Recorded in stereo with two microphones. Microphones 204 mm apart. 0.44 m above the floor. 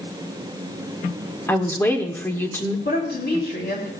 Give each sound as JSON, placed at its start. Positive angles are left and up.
{"t": 1.5, "sound": "a woman speaking", "side_deg": 10, "distance_m": 1.2}
{"t": 2.9, "sound": "a woman speaking", "side_deg": 55, "distance_m": 4.0}